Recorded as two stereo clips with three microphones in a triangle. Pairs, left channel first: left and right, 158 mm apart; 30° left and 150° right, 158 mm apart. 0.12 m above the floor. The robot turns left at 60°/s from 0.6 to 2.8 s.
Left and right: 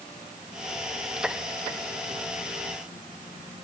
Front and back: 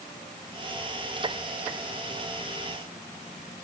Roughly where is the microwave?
I don't hear a microwave.